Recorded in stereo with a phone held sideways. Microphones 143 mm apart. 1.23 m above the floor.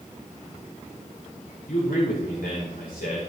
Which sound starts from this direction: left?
A man speaking, at 1.7 s.